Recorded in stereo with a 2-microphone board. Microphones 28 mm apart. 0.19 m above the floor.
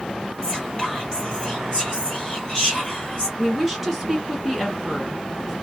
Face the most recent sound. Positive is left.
turn(degrees=0)  # may be behind; listen again after turning